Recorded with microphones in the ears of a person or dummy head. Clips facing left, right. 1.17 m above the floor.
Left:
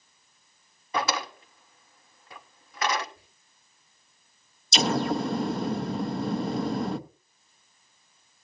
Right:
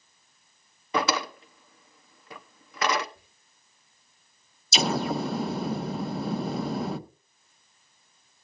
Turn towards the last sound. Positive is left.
turn(degrees=-5)  # may be behind; listen again after turning